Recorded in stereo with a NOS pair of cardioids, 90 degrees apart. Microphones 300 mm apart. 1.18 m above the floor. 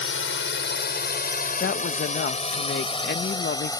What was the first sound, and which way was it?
A drone, 40° left.